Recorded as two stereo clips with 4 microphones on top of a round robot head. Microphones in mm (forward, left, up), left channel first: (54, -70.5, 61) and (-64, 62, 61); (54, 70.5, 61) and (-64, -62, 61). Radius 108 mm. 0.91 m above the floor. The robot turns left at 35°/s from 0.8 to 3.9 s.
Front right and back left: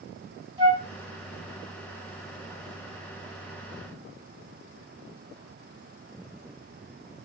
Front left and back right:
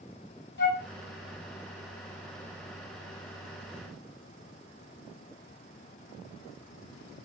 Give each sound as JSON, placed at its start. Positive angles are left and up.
{"t": 0.6, "sound": "a flute", "azimuth_deg": 70, "distance_m": 2.0}